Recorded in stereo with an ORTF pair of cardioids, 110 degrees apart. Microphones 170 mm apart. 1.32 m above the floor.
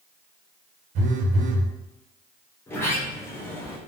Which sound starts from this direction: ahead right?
A phone buzzing, at 0.9 s.